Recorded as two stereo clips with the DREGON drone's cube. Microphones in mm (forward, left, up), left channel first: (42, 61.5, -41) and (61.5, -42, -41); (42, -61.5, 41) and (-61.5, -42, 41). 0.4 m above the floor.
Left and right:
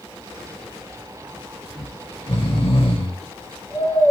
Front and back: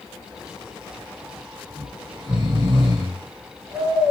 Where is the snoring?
125° left, 4.5 m.